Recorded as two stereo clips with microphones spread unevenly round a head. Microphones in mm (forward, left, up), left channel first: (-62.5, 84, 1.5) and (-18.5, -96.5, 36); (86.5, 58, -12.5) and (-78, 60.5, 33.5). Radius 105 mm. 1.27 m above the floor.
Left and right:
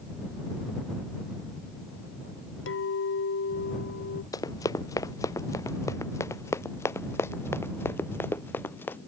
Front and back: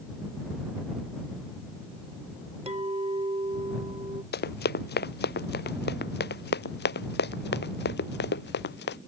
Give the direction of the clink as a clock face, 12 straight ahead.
8 o'clock.